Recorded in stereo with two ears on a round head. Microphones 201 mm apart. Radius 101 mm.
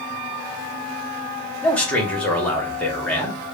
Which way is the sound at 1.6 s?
5° left (ahead or behind).